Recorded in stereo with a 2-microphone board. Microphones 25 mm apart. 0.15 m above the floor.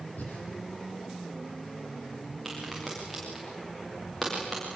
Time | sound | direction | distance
0.2 | breathing | 75° left (ahead or behind) | 6.5 m
2.5 | a crack | 5° left (ahead or behind) | 9.5 m